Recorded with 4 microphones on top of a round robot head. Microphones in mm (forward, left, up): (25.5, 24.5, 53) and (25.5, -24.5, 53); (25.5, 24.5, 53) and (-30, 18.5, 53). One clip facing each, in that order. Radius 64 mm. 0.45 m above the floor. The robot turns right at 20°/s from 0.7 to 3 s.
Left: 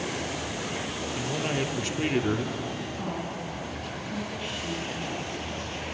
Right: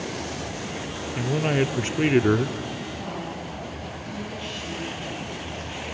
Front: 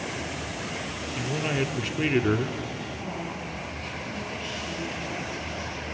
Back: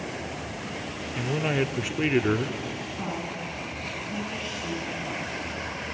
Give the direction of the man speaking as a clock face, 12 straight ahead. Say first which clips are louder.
Right 7 dB, back 2 dB; 4 o'clock.